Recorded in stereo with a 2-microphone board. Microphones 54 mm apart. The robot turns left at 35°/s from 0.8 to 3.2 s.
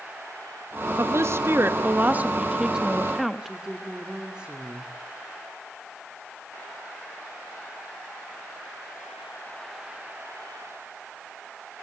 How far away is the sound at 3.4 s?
About 2 m.